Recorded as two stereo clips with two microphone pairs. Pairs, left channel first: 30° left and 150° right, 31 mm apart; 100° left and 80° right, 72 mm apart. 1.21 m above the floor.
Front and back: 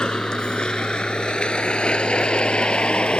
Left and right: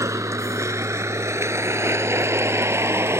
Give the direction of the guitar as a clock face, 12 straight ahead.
I don't hear a guitar.